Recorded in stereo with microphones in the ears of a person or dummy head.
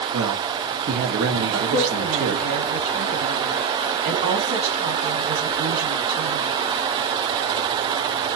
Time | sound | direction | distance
0.1 | a man speaking | 70° right (ahead or behind) | 1.2 m
1.5 | a woman speaking | 50° right (ahead or behind) | 2 m